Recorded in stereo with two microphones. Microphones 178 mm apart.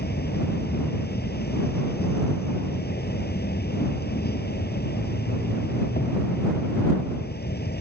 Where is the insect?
65° left (ahead or behind).